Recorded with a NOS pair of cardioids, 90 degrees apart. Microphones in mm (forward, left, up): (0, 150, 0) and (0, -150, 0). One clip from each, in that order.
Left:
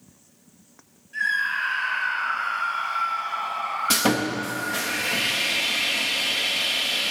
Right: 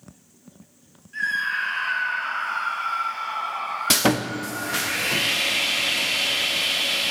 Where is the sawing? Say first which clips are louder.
Right 2 dB; 35° right, 0.6 m.